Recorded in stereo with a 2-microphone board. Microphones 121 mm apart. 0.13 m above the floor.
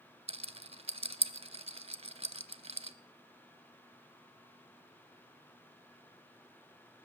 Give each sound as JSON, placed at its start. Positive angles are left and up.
{"t": 0.3, "sound": "a rattle", "side_deg": -55, "distance_m": 0.5}